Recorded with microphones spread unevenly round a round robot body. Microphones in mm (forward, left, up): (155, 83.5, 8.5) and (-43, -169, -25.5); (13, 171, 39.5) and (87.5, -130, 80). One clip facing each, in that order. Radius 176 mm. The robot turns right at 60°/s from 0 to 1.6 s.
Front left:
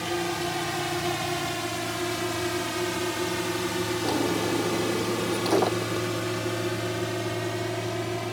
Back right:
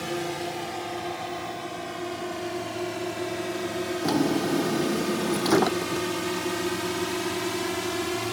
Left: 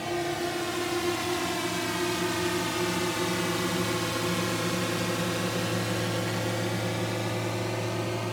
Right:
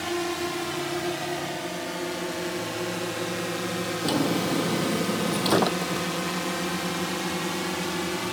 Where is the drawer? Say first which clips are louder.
Back right 4 dB, right 6 dB; 70° right.